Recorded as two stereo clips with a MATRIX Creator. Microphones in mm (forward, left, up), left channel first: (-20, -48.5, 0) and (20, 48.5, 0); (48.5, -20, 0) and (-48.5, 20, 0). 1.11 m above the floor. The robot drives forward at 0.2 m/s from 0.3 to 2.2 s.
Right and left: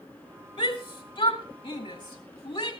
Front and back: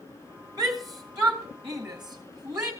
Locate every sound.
0.6 s a shout: 150° right, 2 m; by 2.7 s 155° right, 2.5 m